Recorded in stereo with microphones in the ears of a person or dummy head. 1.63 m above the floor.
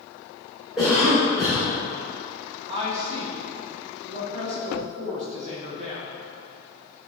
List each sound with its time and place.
0.8 s a cough: centre (ahead or behind), 2.0 m
2.7 s a woman speaking: 35° right (ahead or behind), 1.6 m